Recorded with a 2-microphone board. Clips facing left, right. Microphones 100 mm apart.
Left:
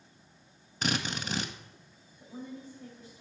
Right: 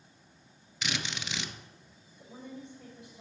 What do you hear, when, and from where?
0.8 s a drill: 40° left (ahead or behind), 0.8 m
2.2 s a woman speaking: 70° right (ahead or behind), 6 m